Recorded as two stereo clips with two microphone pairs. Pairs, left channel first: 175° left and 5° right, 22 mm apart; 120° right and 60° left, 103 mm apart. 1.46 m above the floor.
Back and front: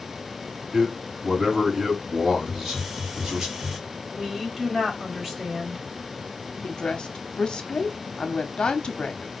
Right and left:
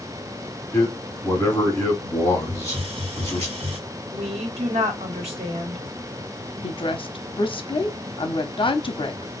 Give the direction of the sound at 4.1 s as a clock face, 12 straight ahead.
10 o'clock.